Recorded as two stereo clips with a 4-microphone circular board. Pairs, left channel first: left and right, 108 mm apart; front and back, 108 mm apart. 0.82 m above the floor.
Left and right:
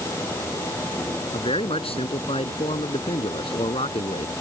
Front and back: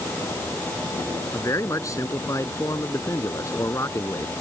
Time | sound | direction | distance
1.3 | a man speaking | 60° left | ?